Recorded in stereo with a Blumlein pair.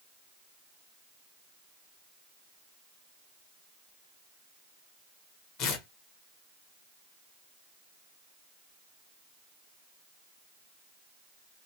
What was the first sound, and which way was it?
Tearing paper, 40° left.